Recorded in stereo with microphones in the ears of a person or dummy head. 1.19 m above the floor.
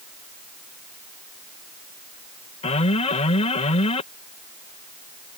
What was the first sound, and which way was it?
An alarm, 35° left (ahead or behind).